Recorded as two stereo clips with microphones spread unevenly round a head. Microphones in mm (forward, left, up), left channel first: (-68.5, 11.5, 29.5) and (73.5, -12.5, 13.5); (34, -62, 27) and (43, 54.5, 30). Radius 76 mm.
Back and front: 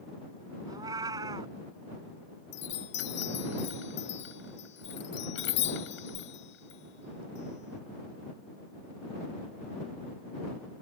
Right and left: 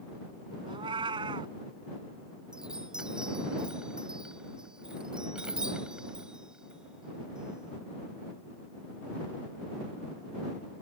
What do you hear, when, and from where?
0.7 s a cat meowing: 55° left
2.5 s a chime: 170° left